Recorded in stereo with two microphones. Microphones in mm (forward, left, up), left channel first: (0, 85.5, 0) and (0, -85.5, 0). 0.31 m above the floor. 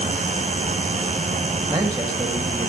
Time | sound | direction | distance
1.7 | a man speaking | 25° right (ahead or behind) | 1.6 m